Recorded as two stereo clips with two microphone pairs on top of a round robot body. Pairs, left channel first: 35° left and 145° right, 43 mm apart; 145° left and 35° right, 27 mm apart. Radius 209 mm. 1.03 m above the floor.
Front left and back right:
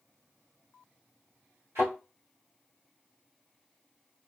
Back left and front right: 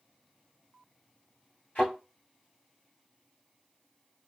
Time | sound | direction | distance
1.8 | a thud | 160° right | 1.1 m